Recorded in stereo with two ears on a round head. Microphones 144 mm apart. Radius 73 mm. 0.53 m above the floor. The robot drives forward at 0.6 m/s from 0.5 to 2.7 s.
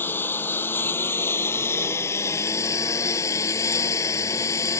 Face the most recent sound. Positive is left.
turn(degrees=20)  # may be behind; listen again after turning